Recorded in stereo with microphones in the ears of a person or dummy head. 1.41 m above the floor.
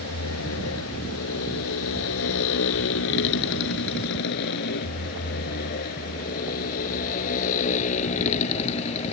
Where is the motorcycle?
80° left; by 9.1 s 35° left (ahead or behind).